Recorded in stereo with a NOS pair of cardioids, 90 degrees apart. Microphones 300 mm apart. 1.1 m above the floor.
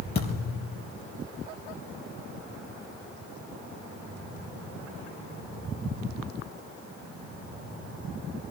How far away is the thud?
About 6 m.